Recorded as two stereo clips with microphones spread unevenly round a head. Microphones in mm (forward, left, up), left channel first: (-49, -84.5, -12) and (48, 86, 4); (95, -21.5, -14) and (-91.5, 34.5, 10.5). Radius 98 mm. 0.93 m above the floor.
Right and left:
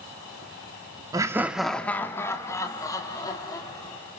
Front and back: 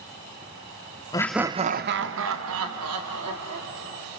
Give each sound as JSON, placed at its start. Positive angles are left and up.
{"t": 1.1, "sound": "laughter", "azimuth_deg": -5, "distance_m": 0.7}